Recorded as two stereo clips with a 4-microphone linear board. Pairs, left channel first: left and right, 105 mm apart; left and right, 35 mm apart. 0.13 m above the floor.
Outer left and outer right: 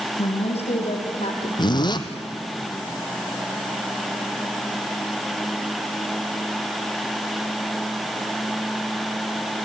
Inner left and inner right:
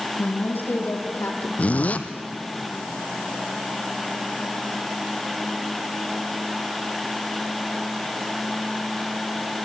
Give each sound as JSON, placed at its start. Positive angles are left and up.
{"t": 0.2, "sound": "a woman speaking", "side_deg": 70, "distance_m": 4.5}
{"t": 1.6, "sound": "a zipper", "side_deg": 40, "distance_m": 1.1}